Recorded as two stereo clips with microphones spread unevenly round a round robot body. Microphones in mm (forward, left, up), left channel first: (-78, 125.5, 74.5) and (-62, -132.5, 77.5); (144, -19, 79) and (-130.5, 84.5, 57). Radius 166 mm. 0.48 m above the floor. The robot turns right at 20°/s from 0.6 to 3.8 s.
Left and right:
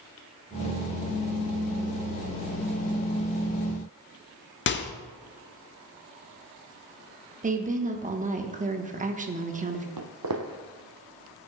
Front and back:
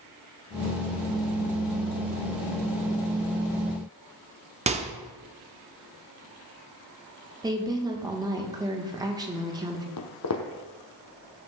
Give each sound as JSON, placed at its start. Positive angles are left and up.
{"t": 4.7, "sound": "a microwave", "azimuth_deg": 105, "distance_m": 0.8}
{"t": 7.4, "sound": "a woman speaking", "azimuth_deg": -135, "distance_m": 1.1}
{"t": 10.0, "sound": "footsteps", "azimuth_deg": -55, "distance_m": 1.0}